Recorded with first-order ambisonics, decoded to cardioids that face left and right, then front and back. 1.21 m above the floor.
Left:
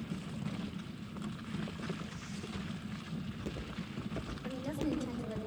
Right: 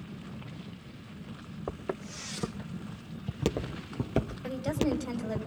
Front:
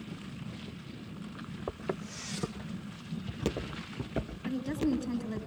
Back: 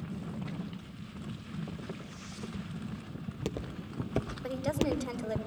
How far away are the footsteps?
About 3.5 m.